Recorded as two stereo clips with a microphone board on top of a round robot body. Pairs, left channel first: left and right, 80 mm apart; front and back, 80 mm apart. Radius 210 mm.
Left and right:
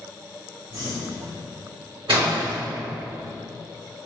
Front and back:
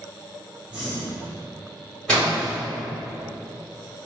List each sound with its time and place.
0.7 s breathing: 110° right, 1.7 m
2.1 s a splash: 80° right, 2.0 m